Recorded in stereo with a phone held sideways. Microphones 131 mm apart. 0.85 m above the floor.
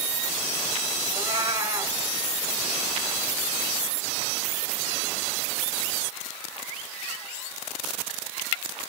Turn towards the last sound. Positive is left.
turn(degrees=-25)  # may be behind; listen again after turning